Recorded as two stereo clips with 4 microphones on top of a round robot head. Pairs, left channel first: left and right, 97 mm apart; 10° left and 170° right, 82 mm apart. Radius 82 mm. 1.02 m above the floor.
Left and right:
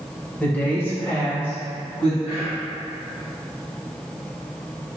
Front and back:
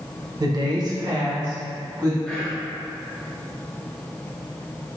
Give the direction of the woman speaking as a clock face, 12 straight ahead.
7 o'clock.